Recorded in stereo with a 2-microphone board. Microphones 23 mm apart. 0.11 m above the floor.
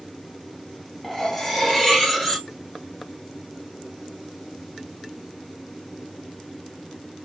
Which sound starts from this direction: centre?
Cutlery clinking, at 1.0 s.